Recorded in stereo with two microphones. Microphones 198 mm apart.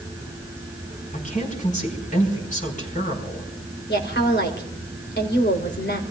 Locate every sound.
1.1 s a woman speaking: 40° left (ahead or behind), 5 m
3.9 s a woman speaking: 65° left (ahead or behind), 3 m